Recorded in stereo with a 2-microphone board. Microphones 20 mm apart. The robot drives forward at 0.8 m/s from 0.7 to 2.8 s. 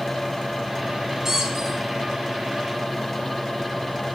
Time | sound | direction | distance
1.2 | a squeak | 25° right (ahead or behind) | 1.7 m